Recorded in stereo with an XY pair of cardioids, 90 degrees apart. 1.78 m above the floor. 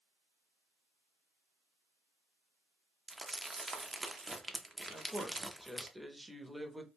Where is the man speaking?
10° right, 0.7 m.